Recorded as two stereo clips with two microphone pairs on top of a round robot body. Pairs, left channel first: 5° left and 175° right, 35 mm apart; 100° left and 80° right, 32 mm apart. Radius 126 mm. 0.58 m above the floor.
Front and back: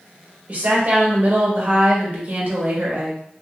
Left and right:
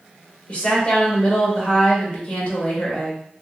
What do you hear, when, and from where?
0.5 s a woman speaking: 140° left, 1.5 m